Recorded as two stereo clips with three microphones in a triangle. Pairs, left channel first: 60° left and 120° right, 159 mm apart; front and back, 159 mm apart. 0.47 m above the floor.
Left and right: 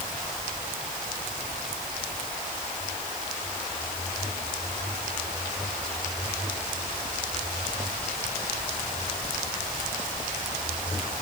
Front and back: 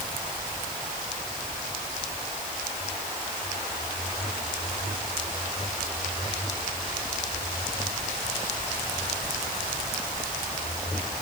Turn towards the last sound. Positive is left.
No sound to turn to.